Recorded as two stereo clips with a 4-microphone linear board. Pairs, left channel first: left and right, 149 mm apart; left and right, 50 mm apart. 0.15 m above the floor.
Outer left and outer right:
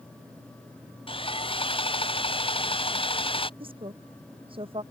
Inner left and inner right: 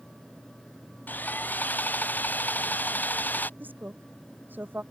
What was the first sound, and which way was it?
Sawing, 35° left (ahead or behind).